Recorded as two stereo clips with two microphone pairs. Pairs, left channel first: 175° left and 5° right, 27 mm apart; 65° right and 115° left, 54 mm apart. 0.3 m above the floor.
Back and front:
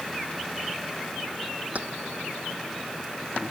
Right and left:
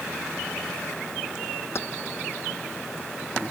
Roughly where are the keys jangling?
Ahead right.